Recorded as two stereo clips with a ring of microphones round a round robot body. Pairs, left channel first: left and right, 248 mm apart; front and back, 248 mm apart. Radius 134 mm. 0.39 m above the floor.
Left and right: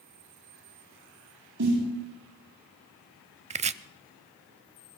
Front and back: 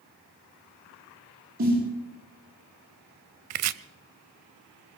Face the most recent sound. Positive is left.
turn(degrees=-155)